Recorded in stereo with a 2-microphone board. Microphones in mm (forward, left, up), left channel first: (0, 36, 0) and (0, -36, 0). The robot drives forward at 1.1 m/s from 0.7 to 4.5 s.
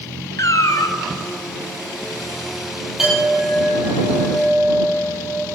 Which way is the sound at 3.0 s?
5° right (ahead or behind).